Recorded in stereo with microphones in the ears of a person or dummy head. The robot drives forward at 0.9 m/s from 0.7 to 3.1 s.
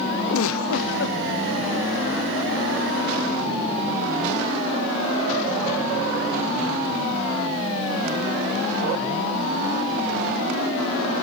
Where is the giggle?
80° left, 0.7 m; by 1.2 s 50° left (ahead or behind), 0.9 m.